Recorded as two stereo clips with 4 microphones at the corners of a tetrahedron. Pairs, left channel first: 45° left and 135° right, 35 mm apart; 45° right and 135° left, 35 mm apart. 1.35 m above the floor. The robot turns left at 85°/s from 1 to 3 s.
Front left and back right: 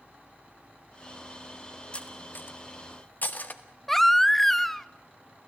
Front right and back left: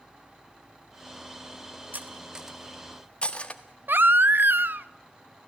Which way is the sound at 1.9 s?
105° left.